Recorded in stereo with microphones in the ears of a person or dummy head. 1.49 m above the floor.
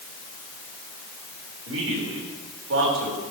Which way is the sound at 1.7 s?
85° right.